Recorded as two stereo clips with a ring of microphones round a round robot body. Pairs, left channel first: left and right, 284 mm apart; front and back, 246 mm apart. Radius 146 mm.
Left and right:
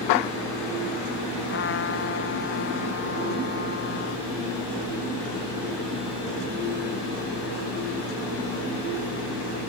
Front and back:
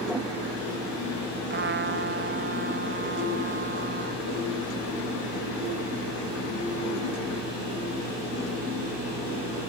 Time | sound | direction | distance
1.5 | a trumpet | 140° left | ?